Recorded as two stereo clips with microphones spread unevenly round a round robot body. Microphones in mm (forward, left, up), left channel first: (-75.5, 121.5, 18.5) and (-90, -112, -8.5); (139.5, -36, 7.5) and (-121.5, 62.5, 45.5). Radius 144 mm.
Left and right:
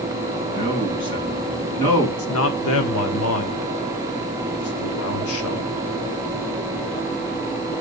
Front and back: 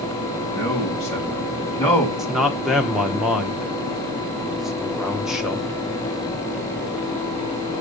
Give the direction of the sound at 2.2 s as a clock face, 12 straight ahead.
10 o'clock.